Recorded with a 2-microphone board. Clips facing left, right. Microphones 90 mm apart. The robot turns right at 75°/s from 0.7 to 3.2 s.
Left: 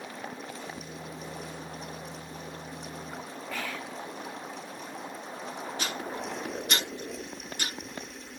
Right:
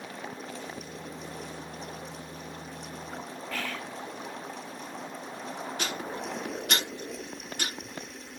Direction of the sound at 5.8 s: 65° right (ahead or behind).